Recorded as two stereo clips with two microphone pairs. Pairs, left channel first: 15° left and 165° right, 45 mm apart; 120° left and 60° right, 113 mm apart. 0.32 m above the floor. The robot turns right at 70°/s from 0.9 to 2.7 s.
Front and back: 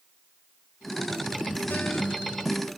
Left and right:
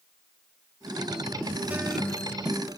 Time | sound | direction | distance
1.7 | a guitar | 10° left | 1.4 m